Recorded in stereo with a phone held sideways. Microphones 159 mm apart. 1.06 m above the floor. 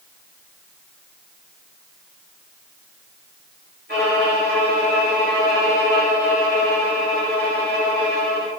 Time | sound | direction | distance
3.9 | a violin | 80° right | 1.5 m